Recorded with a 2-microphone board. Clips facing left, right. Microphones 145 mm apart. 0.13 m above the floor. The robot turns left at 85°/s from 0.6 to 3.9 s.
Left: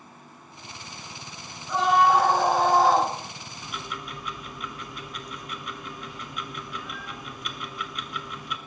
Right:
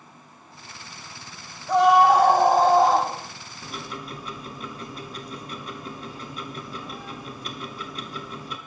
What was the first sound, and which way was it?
A scream, 60° right.